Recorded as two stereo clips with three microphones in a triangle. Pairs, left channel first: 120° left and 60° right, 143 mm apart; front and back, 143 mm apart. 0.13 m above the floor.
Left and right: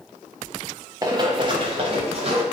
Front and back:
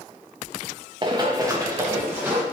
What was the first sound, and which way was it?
Running footsteps, 125° right.